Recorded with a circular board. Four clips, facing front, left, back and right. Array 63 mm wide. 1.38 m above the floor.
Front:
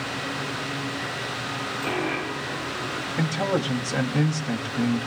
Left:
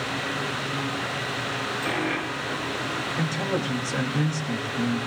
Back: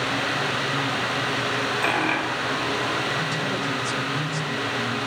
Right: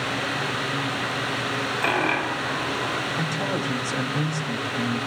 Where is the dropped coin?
125° right, 4.5 m.